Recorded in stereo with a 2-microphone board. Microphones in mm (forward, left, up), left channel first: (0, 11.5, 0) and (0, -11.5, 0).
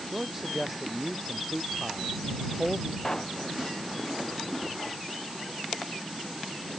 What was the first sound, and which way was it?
A man speaking, 10° right (ahead or behind).